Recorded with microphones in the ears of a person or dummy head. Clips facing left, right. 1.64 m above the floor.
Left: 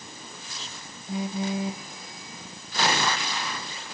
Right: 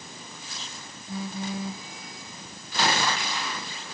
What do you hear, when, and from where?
1.1 s a phone buzzing: 20° left (ahead or behind), 0.6 m